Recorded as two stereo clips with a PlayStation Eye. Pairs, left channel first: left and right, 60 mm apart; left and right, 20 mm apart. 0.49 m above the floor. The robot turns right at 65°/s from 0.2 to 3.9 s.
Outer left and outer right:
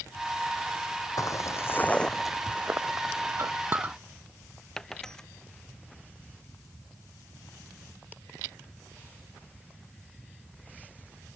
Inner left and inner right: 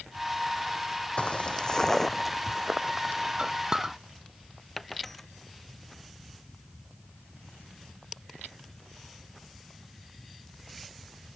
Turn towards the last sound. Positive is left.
turn(degrees=10)  # may be behind; listen again after turning